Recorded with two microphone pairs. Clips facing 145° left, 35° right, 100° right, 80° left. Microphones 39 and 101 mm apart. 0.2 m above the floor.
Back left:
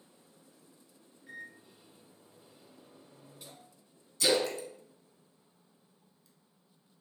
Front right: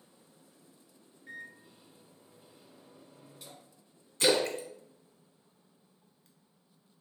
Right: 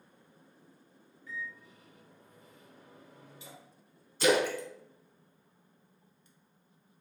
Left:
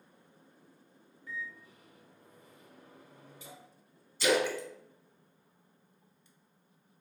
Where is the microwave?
55° left, 1.4 m.